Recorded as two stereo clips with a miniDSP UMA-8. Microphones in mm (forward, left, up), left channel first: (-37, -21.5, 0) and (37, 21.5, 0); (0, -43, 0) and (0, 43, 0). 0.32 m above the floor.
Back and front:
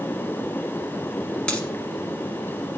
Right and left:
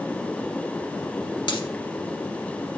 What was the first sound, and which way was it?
A dropped coin, 70° right.